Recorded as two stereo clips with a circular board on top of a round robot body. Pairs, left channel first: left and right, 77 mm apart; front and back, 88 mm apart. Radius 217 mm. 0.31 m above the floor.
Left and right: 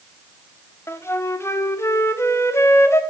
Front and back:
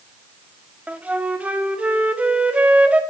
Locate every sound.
0.9 s a flute: 115° left, 1.3 m